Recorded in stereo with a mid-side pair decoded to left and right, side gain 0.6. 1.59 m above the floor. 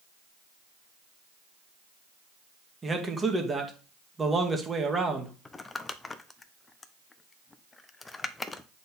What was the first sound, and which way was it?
A man speaking, 20° right.